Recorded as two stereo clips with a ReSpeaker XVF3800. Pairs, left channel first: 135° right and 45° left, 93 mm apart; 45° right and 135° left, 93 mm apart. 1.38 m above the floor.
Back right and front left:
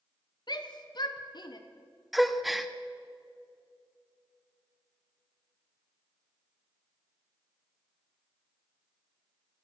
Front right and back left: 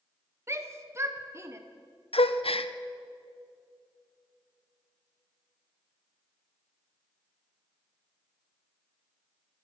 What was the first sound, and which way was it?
A shout, 170° right.